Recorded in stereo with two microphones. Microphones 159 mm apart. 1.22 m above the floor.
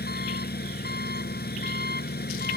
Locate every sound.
0.0 s an engine running: 85° left